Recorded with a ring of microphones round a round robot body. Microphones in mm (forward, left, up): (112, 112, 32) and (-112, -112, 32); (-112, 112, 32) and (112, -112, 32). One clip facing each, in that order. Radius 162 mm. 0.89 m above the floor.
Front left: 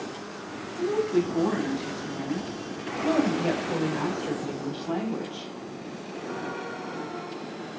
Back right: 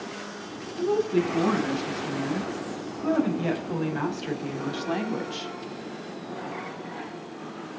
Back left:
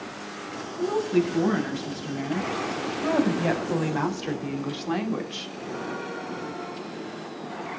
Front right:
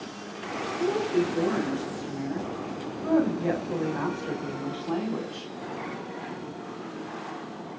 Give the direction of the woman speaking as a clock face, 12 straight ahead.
7 o'clock.